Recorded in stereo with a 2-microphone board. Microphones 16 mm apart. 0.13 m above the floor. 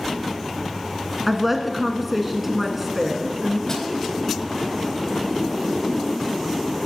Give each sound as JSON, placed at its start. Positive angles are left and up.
{"t": 1.3, "sound": "a woman speaking", "side_deg": -5, "distance_m": 1.1}
{"t": 3.7, "sound": "a snare drum", "side_deg": 30, "distance_m": 2.0}